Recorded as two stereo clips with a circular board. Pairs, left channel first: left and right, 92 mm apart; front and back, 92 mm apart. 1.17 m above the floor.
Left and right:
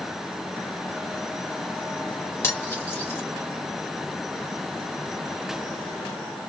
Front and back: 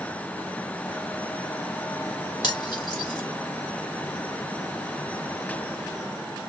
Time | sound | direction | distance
2.4 | cutlery clinking | 25° left | 0.9 m